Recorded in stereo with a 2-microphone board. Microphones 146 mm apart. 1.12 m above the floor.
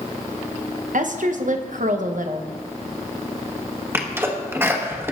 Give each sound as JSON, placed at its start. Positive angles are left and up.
{"t": 0.9, "sound": "a woman speaking", "side_deg": -65, "distance_m": 0.9}
{"t": 3.9, "sound": "a sneeze", "side_deg": -15, "distance_m": 1.3}